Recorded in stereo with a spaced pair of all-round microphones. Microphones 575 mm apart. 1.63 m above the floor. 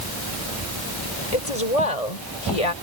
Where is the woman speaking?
85° left; by 2.7 s 80° left.